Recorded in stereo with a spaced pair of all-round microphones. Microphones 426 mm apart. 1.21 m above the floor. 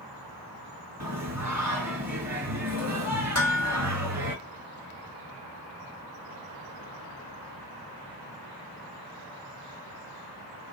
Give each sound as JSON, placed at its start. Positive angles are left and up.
{"t": 1.0, "sound": "singing", "side_deg": -40, "distance_m": 2.5}
{"t": 3.4, "sound": "dishes clattering", "side_deg": 35, "distance_m": 2.0}